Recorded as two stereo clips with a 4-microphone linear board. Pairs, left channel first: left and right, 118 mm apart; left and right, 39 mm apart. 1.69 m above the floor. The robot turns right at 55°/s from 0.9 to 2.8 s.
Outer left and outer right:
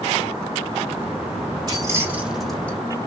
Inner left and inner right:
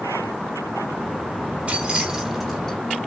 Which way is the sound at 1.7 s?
40° right (ahead or behind).